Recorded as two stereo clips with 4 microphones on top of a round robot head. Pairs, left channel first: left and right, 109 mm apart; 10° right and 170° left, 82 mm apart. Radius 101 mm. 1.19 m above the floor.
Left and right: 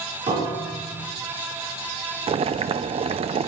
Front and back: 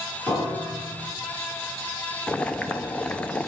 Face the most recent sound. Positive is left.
turn(degrees=-85)